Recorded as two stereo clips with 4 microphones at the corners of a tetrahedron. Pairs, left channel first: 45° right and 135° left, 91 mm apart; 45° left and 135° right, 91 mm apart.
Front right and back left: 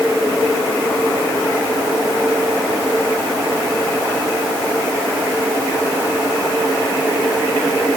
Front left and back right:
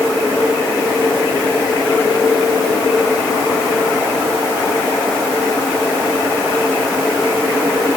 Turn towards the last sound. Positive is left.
No sound to turn to.